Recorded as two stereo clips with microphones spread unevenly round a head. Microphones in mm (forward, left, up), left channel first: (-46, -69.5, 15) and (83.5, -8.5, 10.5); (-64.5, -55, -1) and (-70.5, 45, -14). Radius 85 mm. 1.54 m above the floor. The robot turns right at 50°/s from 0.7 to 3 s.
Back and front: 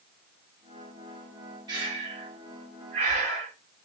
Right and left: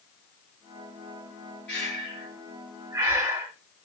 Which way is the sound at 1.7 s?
25° right.